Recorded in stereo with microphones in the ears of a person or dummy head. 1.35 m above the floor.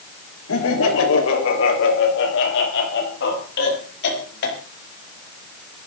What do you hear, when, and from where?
0.5 s laughter: 80° left, 5.5 m; by 4.6 s 60° left (ahead or behind), 7.5 m